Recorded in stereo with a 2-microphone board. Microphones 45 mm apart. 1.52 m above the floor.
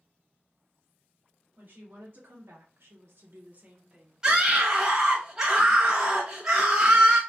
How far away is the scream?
About 0.9 m.